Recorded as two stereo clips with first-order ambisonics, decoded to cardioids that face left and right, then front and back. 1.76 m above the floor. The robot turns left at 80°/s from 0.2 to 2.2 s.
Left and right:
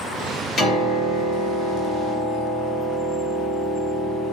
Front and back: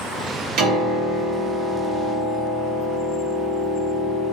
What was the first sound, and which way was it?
A piano, 160° left.